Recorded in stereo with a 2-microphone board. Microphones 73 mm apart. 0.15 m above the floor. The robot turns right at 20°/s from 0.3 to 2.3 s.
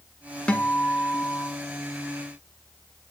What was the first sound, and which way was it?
A guitar, 15° left (ahead or behind).